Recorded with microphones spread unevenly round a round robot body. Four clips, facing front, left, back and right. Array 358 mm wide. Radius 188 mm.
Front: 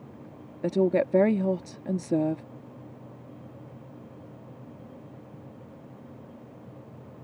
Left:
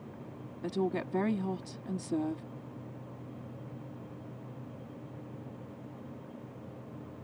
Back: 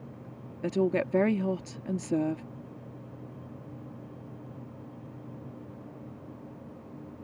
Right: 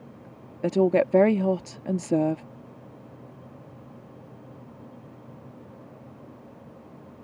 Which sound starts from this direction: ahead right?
A woman speaking, at 0.6 s.